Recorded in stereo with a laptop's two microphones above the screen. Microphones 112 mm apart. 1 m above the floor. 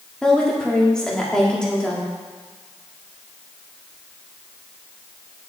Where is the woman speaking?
5° left (ahead or behind), 1.7 m.